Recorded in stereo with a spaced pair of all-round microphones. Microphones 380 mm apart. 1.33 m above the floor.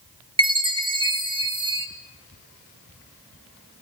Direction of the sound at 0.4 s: 15° right (ahead or behind).